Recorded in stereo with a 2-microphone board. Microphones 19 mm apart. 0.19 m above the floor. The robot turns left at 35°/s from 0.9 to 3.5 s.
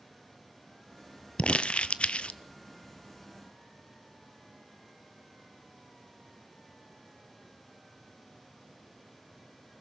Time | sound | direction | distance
1.4 | crumpling | 75° left (ahead or behind) | 0.6 m